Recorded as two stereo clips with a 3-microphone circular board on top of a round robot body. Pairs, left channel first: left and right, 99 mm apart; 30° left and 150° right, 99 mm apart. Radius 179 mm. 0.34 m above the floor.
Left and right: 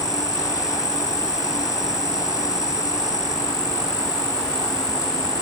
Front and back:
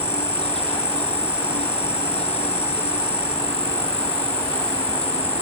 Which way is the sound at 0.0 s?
35° left.